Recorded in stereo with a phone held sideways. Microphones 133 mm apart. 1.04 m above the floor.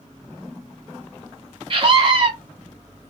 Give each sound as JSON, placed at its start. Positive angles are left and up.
{"t": 1.7, "sound": "a scream", "side_deg": -40, "distance_m": 1.1}